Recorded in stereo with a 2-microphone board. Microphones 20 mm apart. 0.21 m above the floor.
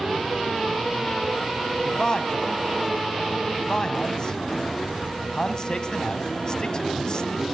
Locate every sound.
1.9 s a man speaking: 35° left (ahead or behind), 1.8 m